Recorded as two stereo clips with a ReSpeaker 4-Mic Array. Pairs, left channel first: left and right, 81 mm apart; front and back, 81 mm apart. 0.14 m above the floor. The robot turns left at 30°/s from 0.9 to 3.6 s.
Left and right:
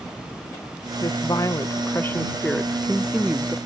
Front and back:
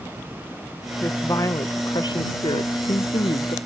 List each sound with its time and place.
1.0 s a woman speaking: 60° left; by 3.6 s 20° right